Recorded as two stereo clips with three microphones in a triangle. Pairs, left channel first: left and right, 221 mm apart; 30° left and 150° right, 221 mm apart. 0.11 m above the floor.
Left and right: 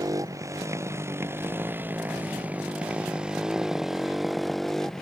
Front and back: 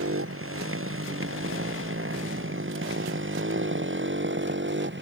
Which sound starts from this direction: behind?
A motorcycle, at 0.0 s.